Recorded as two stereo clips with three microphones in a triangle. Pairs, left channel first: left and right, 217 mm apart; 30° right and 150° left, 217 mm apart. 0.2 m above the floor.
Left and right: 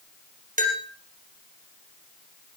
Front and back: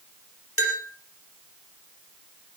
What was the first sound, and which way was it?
A bell, 35° right.